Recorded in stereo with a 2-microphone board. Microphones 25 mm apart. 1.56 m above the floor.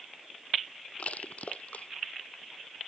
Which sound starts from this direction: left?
Crushing, at 1.0 s.